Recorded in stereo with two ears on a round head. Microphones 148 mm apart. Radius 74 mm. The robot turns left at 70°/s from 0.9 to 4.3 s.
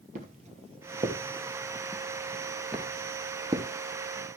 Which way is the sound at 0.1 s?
45° right (ahead or behind).